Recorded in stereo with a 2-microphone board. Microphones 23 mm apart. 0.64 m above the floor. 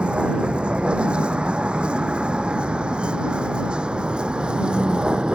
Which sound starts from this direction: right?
A vehicle, at 0.0 s.